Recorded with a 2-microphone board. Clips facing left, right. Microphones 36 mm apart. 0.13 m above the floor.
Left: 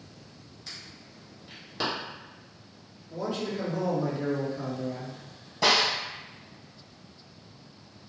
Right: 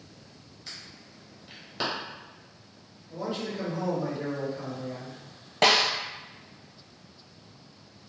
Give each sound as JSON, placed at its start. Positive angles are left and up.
{"t": 0.7, "sound": "an alarm", "side_deg": -5, "distance_m": 1.7}
{"t": 3.1, "sound": "a man speaking", "side_deg": -5, "distance_m": 1.8}
{"t": 5.6, "sound": "a snare drum", "side_deg": -60, "distance_m": 0.8}